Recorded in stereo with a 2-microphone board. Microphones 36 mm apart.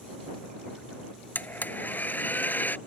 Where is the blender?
65° left (ahead or behind).